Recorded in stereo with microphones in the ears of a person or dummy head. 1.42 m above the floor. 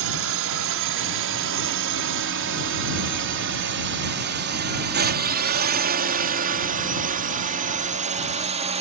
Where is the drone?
70° right (ahead or behind); by 8.8 s 35° right (ahead or behind).